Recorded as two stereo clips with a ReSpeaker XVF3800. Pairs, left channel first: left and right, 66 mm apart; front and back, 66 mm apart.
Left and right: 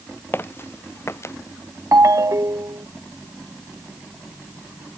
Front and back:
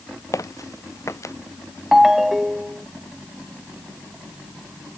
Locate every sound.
0.3 s footsteps: 35° left; by 1.4 s 45° left
1.9 s a ringtone: 95° right